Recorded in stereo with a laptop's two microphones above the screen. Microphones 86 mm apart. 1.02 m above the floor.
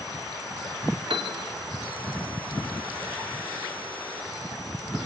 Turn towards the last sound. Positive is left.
turn(degrees=-85)